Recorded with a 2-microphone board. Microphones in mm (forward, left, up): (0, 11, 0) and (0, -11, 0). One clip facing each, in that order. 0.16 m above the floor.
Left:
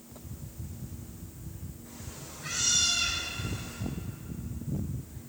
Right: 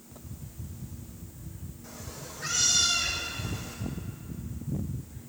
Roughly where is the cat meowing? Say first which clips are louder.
Right 5 dB; right.